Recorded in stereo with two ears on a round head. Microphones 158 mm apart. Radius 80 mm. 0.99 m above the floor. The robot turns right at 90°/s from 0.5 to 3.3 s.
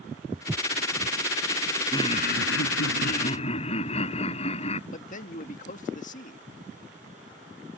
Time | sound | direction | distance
0.3 | footsteps | 10° right (ahead or behind) | ?
1.9 | laughter | 20° left | ?
4.9 | a man speaking | 45° left (ahead or behind) | ?